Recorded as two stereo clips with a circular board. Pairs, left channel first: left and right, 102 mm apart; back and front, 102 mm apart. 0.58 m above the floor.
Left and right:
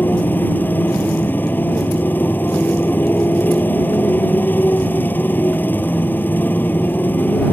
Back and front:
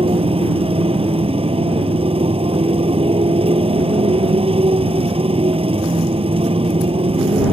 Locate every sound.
0.0 s a motorcycle: 20° left